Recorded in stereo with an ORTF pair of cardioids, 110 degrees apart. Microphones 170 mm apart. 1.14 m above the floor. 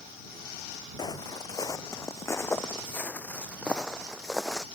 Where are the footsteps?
25° left; by 4.7 s 5° right.